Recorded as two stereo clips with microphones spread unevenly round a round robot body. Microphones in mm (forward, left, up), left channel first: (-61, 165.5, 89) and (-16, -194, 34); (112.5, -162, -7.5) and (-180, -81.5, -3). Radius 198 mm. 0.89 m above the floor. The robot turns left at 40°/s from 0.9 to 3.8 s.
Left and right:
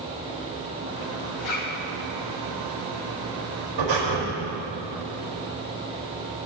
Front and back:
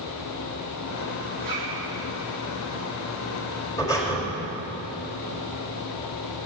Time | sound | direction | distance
1.4 | a zipper | 95° left | 2.5 m
3.8 | breathing | 95° right | 4.5 m